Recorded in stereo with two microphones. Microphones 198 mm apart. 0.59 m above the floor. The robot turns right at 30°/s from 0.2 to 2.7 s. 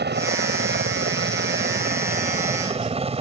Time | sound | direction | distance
0.0 | a helicopter | 110° right | ?